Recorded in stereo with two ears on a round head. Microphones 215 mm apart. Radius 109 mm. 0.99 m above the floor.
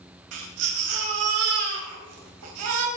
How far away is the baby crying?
About 4 m.